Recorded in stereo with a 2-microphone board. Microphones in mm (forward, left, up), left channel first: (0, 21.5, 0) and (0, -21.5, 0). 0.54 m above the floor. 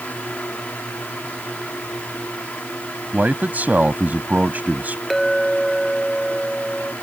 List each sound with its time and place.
3.1 s a man speaking: 40° right (ahead or behind)
5.1 s a clink: 5° left (ahead or behind)